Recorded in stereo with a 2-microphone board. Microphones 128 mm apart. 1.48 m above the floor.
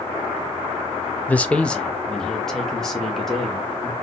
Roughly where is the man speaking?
Centre.